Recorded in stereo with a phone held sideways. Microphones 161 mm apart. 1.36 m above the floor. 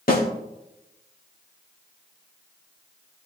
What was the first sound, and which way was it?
A snare drum, 65° left (ahead or behind).